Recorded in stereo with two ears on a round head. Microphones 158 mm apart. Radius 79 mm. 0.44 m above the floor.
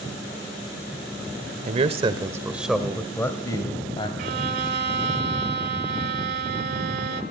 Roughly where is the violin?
Right.